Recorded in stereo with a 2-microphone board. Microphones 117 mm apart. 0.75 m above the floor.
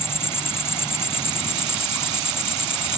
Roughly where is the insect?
Left.